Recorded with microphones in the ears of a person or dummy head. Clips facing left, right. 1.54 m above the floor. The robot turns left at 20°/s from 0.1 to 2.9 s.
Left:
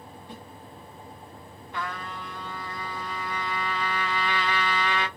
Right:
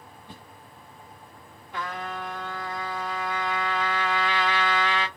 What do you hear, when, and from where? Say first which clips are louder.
0.3 s a whoosh: left 4 dB; 60° right (ahead or behind), 2 m
1.7 s a trumpet: right 2 dB; 10° right (ahead or behind), 1.2 m; by 5.1 s 5° left (ahead or behind), 1.2 m